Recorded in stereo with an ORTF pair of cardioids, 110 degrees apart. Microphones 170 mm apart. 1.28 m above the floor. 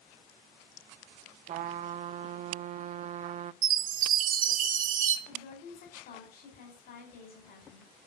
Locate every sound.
1.5 s a trumpet: 50° right, 0.8 m
3.6 s a chime: 55° right, 1.5 m
5.3 s a woman speaking: 60° left, 5.5 m